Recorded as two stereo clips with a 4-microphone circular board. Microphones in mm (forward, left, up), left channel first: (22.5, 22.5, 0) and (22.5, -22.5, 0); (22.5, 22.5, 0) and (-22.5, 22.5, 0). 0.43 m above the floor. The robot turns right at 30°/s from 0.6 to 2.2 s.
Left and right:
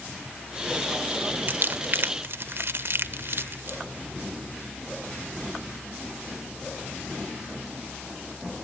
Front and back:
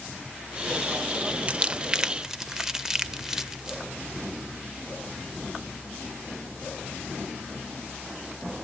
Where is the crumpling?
125° right, 0.6 m; by 3.8 s 105° right, 0.6 m.